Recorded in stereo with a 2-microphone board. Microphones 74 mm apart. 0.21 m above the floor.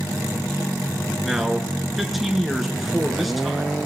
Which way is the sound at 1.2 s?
5° right (ahead or behind).